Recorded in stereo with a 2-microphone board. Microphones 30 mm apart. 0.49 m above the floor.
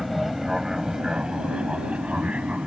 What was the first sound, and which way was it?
An aircraft, 5° right (ahead or behind).